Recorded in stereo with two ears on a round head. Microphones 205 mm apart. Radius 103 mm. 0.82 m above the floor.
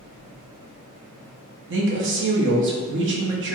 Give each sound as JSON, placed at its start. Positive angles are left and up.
{"t": 1.7, "sound": "a woman speaking", "side_deg": -55, "distance_m": 0.8}